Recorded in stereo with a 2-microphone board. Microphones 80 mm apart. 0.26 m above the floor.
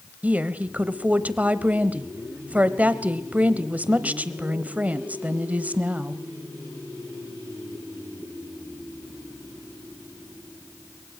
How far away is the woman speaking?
About 0.9 m.